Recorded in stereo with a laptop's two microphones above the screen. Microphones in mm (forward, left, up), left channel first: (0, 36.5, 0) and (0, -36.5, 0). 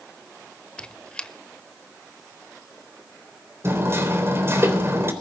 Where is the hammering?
35° right (ahead or behind), 3.5 m.